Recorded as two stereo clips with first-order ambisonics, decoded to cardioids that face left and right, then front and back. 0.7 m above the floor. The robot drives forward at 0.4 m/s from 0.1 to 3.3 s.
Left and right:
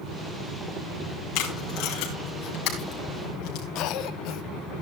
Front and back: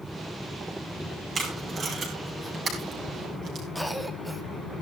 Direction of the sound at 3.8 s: 90° left.